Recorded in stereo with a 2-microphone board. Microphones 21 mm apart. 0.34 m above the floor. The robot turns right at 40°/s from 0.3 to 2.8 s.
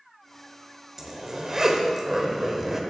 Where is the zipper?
20° right (ahead or behind), 0.7 m; by 2.8 s 15° right (ahead or behind), 0.7 m.